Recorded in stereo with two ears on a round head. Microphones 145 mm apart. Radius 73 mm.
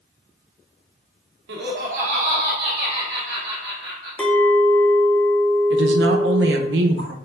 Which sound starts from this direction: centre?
A clink, at 4.2 s.